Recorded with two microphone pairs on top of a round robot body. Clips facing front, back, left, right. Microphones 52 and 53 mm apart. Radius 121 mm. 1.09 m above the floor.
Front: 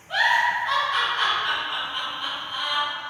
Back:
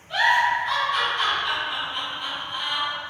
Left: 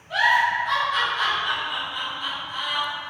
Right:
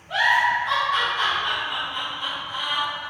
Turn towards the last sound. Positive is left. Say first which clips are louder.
# back 1 dB, even
turn(degrees=-60)